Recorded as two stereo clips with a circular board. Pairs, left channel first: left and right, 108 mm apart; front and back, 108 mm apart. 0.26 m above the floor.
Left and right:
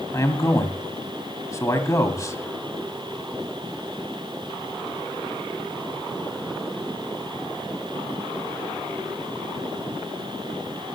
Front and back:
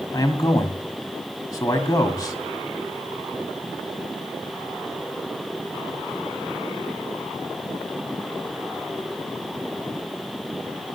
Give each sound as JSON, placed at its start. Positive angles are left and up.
{"t": 0.1, "sound": "a man speaking", "azimuth_deg": 40, "distance_m": 1.6}